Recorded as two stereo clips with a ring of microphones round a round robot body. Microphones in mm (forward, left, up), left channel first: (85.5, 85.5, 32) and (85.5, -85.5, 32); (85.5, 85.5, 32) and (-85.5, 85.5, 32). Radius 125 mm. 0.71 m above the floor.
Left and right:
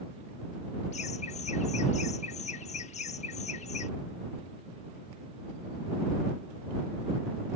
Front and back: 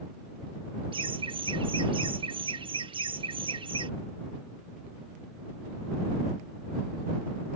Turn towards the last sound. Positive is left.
turn(degrees=130)